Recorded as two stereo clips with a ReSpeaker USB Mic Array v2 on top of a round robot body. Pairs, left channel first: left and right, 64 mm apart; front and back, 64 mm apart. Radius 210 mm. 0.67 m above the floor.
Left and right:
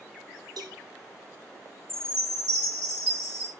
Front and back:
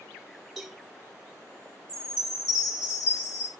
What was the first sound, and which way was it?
A cowbell, 95° right.